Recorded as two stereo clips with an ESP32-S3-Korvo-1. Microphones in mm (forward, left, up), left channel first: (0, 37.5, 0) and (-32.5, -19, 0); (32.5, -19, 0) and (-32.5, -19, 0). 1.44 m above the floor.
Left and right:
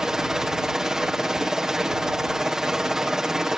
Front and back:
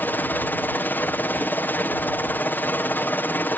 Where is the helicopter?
45° right.